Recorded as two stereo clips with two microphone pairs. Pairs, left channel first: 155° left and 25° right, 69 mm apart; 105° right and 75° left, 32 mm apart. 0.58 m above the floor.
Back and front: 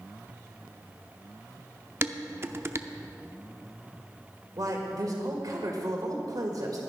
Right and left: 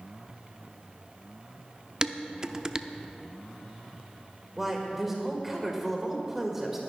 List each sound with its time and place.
2.0 s dishes clattering: 15° left, 0.5 m
4.6 s a man speaking: 5° right, 1.8 m